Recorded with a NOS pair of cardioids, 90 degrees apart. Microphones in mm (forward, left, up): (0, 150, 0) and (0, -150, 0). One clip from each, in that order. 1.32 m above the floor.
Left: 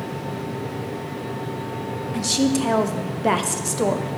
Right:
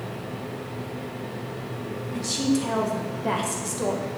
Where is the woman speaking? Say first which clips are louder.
Left 4 dB; 30° left, 0.7 m.